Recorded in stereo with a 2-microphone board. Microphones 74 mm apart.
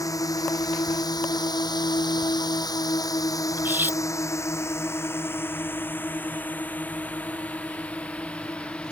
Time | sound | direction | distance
0.0 | a drone | 55° left (ahead or behind) | ?
3.6 | cutlery clinking | 30° right (ahead or behind) | ?